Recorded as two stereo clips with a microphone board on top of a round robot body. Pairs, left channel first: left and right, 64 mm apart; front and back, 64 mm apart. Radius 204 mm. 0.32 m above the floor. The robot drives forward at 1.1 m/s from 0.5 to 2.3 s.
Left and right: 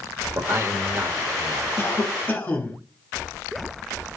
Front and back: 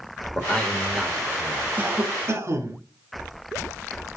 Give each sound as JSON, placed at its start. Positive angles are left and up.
{"t": 0.3, "sound": "a man speaking", "azimuth_deg": -65, "distance_m": 1.6}
{"t": 1.8, "sound": "a cough", "azimuth_deg": 130, "distance_m": 1.2}